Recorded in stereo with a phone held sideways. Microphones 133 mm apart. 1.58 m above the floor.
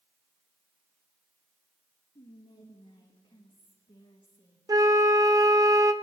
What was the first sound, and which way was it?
Whispering, 35° left (ahead or behind).